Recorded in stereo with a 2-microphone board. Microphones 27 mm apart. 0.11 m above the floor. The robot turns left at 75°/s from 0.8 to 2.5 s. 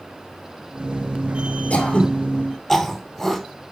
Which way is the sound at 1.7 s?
55° left (ahead or behind).